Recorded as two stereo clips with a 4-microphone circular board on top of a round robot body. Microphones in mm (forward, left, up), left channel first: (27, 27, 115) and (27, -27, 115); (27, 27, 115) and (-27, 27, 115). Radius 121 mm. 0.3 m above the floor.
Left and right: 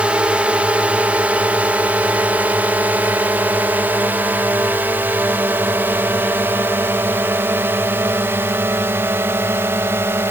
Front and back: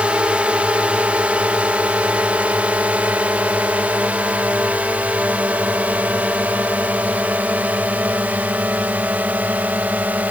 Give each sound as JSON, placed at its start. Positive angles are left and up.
{"t": 0.0, "sound": "a drone", "azimuth_deg": -135}